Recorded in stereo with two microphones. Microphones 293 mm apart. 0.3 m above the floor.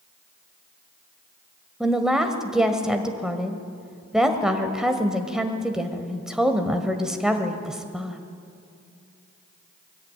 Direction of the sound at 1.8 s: Centre (ahead or behind).